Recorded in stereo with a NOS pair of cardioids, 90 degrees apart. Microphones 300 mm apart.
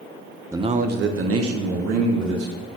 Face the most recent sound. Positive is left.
turn(degrees=-65)